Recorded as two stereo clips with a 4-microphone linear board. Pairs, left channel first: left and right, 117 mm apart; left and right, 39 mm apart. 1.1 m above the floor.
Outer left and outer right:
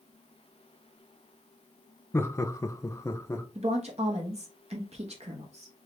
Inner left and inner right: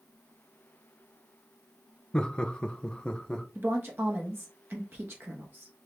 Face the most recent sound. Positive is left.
turn(degrees=-65)  # may be behind; listen again after turning